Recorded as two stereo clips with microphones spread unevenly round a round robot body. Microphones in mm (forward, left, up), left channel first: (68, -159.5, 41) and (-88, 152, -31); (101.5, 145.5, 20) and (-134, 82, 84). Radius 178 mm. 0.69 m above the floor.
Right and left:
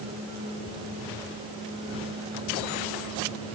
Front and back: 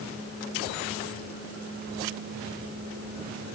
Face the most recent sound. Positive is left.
No sound to turn to.